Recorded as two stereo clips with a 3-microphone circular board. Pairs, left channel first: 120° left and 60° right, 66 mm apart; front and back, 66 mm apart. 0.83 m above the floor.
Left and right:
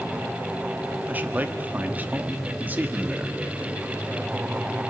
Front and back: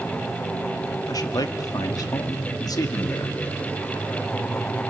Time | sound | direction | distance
1.1 | a man speaking | straight ahead | 1.4 m